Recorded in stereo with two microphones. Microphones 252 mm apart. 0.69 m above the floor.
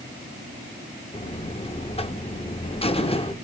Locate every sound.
1.1 s a buzzer: 25° left (ahead or behind), 0.8 m